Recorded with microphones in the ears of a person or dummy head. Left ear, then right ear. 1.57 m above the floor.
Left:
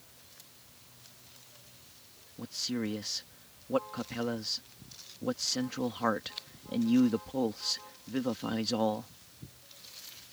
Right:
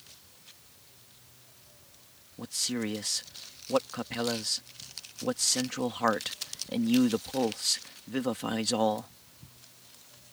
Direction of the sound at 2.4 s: 20° right (ahead or behind).